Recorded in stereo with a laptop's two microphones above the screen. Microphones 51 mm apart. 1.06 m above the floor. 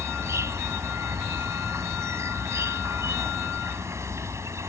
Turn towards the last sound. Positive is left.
turn(degrees=-80)